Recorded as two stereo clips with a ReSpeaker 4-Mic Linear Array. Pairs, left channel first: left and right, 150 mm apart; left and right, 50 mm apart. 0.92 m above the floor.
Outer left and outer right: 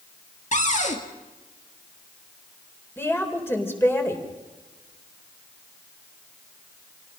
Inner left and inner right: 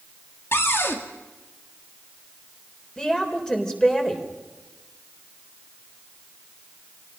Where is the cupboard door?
50° left (ahead or behind), 2 m.